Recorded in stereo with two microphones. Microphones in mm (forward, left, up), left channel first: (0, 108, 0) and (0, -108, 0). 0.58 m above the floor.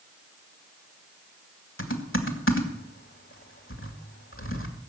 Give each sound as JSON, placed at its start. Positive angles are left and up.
{"t": 1.8, "sound": "typing on a keyboard", "side_deg": 70, "distance_m": 2.0}